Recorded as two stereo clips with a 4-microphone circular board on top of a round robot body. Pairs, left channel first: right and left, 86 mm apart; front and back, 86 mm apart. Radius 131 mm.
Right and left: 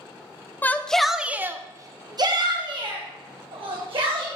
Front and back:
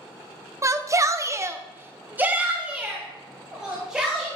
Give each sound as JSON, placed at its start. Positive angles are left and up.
{"t": 0.6, "sound": "a shout", "azimuth_deg": -145, "distance_m": 0.9}